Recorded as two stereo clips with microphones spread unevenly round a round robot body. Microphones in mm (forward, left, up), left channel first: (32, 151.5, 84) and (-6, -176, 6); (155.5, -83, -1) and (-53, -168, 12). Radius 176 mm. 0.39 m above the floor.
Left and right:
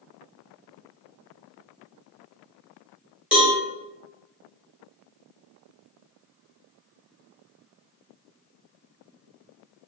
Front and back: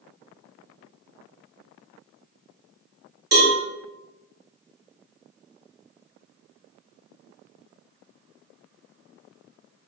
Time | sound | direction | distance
3.3 | a cowbell | 165° right | 1.8 m